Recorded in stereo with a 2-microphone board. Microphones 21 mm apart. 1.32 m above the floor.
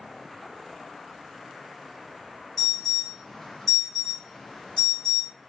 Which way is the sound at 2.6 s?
10° left (ahead or behind).